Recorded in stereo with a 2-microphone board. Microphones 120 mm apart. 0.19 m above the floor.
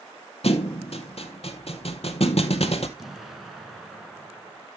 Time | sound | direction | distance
0.4 | a thud | 60° left (ahead or behind) | 0.8 m
3.0 | an explosion | centre (ahead or behind) | 1.4 m